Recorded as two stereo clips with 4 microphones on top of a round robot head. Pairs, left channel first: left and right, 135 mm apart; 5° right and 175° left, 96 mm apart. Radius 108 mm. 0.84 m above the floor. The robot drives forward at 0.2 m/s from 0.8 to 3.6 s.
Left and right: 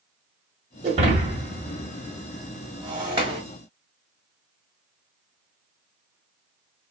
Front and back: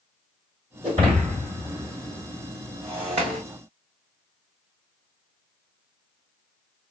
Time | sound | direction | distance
0.8 | breaking glass | 135° right | 1.1 m